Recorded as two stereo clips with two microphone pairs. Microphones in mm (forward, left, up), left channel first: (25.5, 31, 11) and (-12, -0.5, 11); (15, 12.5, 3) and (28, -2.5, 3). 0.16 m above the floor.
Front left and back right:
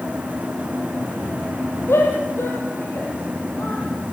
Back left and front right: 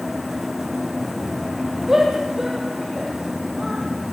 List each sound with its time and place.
1.9 s a shout: 15° left, 6 m; by 3.8 s 20° left, 7.5 m